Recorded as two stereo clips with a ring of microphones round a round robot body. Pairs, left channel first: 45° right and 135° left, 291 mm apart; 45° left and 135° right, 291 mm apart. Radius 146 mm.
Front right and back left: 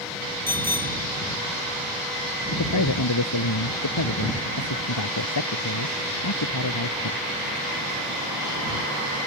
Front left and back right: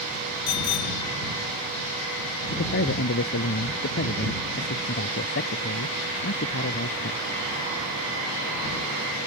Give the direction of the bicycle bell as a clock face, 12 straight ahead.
11 o'clock.